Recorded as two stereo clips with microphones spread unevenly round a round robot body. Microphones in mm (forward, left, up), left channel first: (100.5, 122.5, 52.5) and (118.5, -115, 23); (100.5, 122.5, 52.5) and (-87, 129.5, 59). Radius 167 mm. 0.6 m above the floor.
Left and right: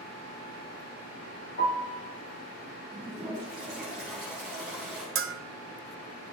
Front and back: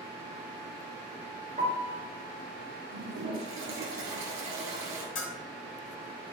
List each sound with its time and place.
1.6 s a piano: 135° left, 3 m
2.9 s a toilet flushing: 175° right, 2.5 m
5.2 s a bell: 50° right, 0.9 m